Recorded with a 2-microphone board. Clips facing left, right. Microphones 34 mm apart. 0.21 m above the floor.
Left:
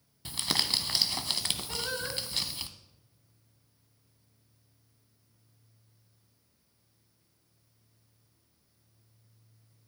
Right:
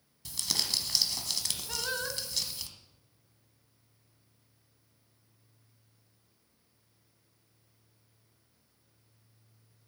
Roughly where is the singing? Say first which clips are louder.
Even; centre.